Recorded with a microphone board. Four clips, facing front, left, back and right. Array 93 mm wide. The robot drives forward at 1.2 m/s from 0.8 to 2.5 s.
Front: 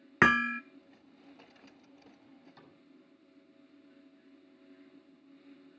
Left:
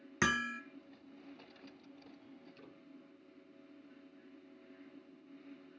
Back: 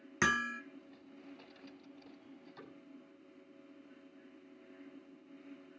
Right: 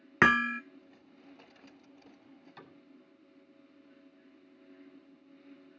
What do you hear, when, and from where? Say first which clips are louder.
0.2 s hammering: right 9 dB, front 7 dB; 45° right, 0.7 m
2.6 s a cupboard door: right 3 dB, back 4 dB; 95° right, 7.5 m